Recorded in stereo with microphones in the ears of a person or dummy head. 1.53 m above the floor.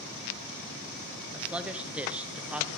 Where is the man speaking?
5° right (ahead or behind), 1.2 m.